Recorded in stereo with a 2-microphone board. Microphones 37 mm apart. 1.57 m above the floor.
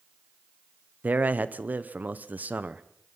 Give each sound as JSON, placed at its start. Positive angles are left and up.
{"t": 1.0, "sound": "a man speaking", "side_deg": -50, "distance_m": 0.9}